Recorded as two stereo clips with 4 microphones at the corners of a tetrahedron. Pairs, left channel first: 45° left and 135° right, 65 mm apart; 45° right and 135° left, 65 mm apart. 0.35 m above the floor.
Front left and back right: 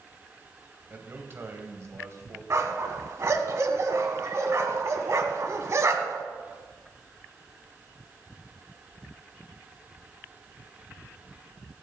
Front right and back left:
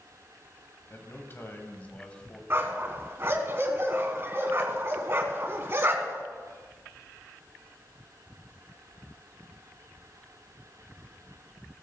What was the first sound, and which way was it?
A man speaking, 85° right.